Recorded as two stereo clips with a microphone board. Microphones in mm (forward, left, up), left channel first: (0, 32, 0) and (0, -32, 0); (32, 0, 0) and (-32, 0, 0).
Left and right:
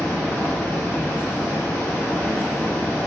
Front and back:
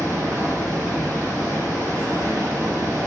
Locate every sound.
0.0 s running water: 150° left, 1.4 m